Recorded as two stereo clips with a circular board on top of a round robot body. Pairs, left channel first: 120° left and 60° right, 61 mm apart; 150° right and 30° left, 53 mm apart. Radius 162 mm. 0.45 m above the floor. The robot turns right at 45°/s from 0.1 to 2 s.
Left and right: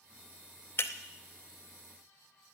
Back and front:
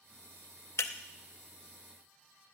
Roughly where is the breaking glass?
Behind.